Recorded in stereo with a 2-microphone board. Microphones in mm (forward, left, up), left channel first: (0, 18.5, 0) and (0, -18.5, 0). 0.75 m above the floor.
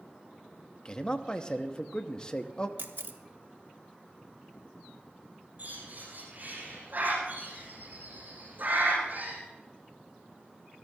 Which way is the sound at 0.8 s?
25° left (ahead or behind).